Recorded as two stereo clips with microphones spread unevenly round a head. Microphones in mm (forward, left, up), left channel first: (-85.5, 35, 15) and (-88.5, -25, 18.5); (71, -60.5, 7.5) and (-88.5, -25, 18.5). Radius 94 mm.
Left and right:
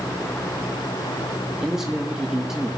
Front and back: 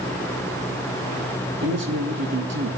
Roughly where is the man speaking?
Behind.